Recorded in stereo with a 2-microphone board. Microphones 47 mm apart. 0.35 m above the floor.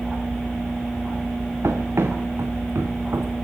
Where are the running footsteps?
80° right, 3 m; by 3.3 s 65° right (ahead or behind), 2 m.